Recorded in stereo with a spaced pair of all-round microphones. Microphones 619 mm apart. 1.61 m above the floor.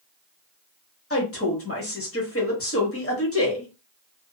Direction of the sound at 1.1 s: 20° left (ahead or behind).